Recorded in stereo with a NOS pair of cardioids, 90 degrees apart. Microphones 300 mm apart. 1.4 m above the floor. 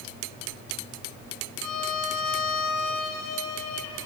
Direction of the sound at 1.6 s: 70° left.